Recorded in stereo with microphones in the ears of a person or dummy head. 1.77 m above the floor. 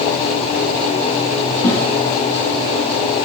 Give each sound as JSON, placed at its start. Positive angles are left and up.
{"t": 1.6, "sound": "a snare drum", "side_deg": 25, "distance_m": 2.5}